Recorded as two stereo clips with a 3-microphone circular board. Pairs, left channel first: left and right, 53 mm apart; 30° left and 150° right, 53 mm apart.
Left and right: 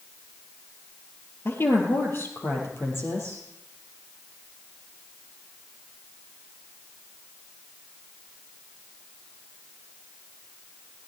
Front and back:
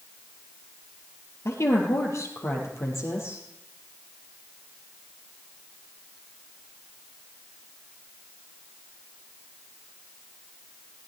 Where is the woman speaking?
50° left, 3.5 m.